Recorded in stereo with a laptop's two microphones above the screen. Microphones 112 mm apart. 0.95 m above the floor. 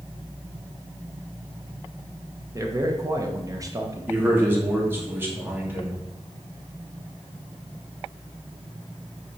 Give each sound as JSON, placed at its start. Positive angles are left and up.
{"t": 2.5, "sound": "a man speaking", "side_deg": -30, "distance_m": 1.0}
{"t": 4.1, "sound": "a man speaking", "side_deg": -20, "distance_m": 2.0}